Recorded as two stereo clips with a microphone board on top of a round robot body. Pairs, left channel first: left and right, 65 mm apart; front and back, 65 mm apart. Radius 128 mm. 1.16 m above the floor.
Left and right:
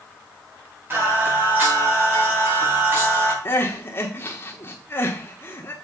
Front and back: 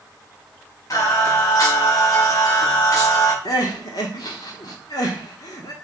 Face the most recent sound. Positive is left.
turn(degrees=35)